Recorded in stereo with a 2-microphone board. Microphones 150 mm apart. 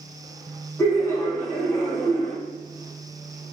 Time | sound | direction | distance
0.8 | laughter | 15° left (ahead or behind) | 0.7 m